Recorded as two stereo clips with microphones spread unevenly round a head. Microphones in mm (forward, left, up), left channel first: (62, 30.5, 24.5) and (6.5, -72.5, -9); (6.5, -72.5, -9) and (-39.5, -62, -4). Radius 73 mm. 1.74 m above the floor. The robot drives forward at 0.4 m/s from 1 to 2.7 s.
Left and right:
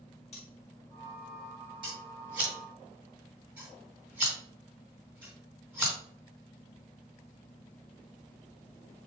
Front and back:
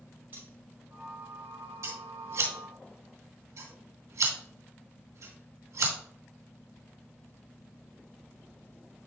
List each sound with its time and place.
0.3 s cutlery clinking: 100° left, 3 m
1.8 s scissors: 155° left, 2.5 m